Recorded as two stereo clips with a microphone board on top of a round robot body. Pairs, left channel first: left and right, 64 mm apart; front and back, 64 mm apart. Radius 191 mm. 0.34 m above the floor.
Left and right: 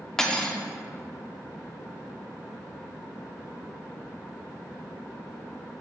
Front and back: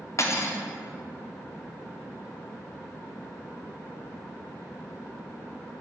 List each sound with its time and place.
0.2 s cutlery clinking: 10° left, 0.7 m